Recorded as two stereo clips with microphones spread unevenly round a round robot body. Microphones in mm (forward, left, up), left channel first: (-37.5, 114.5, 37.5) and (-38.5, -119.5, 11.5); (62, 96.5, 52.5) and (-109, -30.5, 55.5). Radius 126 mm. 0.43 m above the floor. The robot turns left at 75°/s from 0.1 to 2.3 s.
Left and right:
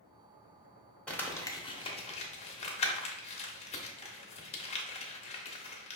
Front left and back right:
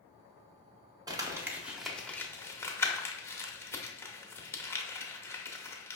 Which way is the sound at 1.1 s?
175° right.